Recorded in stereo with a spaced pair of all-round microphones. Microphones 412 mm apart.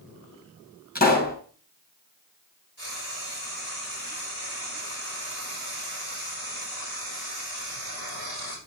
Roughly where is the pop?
Left.